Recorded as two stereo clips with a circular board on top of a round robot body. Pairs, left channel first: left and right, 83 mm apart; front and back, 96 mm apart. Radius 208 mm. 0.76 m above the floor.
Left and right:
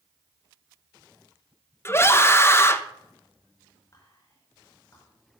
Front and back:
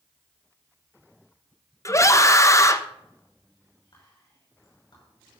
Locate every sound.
1.9 s a scream: 45° left, 1.1 m
3.9 s whispering: 40° left, 5.5 m